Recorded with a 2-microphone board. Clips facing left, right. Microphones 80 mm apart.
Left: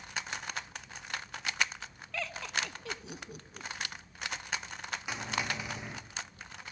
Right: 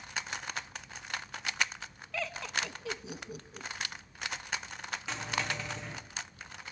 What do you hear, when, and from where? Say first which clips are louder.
2.1 s laughter: right 1 dB; centre (ahead or behind), 1.1 m
5.1 s a dropped coin: even; 15° left (ahead or behind), 3.5 m